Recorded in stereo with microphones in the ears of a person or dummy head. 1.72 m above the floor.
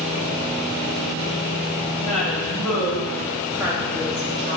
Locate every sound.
2.0 s a woman speaking: 5° left (ahead or behind), 3 m; by 4.6 s 30° right (ahead or behind), 1.9 m